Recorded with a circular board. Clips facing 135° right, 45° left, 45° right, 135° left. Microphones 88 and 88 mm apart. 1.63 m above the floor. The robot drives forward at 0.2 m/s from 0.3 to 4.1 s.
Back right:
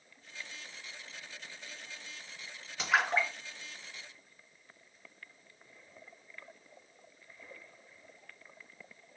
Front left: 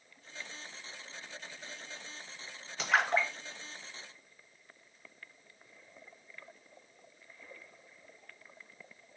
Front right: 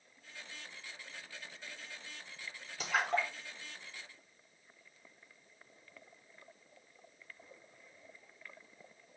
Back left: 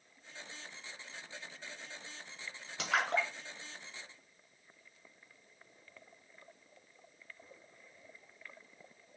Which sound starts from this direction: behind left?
A splash, at 2.8 s.